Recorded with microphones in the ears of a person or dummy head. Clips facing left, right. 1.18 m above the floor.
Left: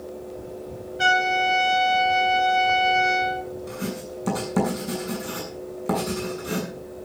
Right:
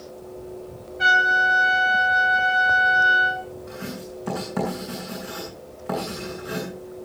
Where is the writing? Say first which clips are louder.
Left 3 dB; 45° left (ahead or behind), 7.5 m.